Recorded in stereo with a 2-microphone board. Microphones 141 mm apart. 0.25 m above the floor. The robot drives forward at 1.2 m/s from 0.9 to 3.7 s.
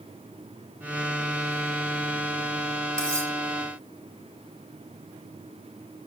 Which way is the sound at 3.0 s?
10° left (ahead or behind).